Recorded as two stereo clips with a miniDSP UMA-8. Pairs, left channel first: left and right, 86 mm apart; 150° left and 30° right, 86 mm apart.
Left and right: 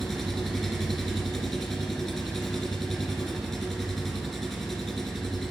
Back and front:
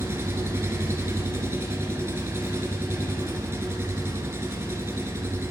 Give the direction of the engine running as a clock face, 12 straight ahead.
12 o'clock.